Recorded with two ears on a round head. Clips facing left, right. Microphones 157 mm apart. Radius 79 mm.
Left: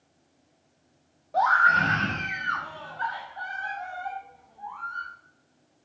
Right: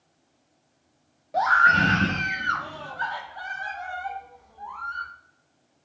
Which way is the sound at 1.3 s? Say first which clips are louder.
Right 1 dB; 20° right (ahead or behind).